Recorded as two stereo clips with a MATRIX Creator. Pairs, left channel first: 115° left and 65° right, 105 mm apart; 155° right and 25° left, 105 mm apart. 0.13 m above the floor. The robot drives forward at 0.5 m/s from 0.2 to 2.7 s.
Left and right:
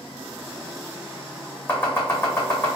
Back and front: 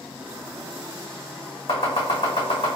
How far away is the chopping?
About 1.9 m.